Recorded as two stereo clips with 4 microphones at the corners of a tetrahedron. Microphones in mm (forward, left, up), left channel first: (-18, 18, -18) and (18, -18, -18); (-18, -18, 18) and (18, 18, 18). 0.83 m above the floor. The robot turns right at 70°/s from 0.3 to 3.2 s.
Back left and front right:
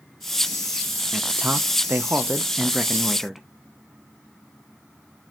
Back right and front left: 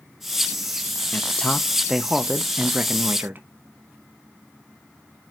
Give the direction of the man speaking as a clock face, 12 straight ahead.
3 o'clock.